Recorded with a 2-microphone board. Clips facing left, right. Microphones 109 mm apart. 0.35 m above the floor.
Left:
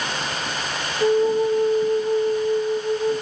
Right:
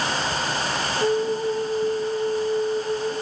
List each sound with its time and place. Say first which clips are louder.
1.0 s a flute: left 5 dB; 15° left (ahead or behind), 1.4 m